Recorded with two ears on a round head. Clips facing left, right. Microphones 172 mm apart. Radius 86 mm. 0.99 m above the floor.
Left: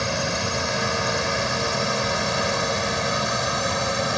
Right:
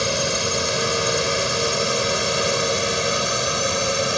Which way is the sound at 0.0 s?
40° right (ahead or behind).